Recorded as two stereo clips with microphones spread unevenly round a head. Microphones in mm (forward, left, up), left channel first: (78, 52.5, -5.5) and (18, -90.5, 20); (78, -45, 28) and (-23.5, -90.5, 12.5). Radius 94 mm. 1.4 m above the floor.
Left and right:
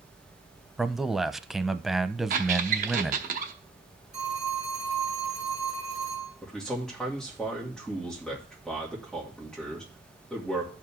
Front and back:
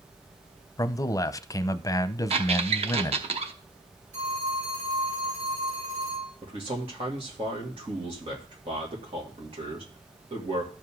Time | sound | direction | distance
0.8 | a man speaking | 30° right | 0.6 m
2.3 | a squeak | 130° right | 0.8 m
4.1 | a phone ringing | 165° left | 7.5 m
6.4 | a man speaking | 150° left | 2 m